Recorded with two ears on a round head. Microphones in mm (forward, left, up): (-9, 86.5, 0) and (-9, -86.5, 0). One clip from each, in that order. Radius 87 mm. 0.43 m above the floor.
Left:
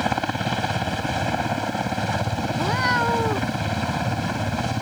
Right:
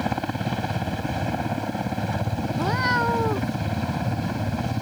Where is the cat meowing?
10° left (ahead or behind).